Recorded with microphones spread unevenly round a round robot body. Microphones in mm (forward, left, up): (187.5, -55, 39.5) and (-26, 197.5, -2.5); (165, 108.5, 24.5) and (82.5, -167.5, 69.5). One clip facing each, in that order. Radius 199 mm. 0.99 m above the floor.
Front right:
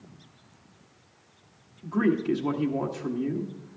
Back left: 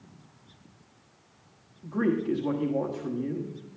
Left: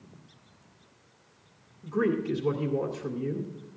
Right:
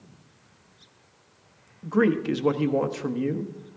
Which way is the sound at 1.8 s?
125° right.